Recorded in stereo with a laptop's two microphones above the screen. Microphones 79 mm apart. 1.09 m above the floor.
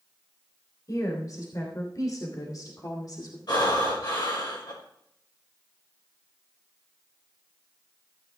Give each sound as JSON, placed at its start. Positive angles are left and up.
{"t": 0.9, "sound": "a woman speaking", "side_deg": 45, "distance_m": 3.5}
{"t": 3.5, "sound": "breathing", "side_deg": 65, "distance_m": 5.5}